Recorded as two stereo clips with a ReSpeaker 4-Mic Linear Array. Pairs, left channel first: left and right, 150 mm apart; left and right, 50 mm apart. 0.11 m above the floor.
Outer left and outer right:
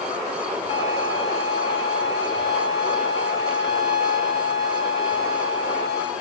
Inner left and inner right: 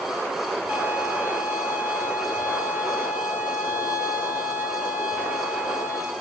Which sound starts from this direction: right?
A violin, at 0.7 s.